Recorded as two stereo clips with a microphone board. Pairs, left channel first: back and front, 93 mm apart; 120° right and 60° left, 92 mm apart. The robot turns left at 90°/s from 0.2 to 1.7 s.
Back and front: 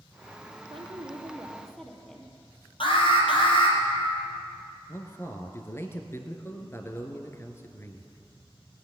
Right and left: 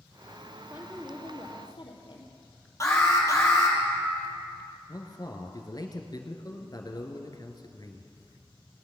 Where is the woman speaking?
5° right, 3 m; by 2.3 s 95° right, 3 m.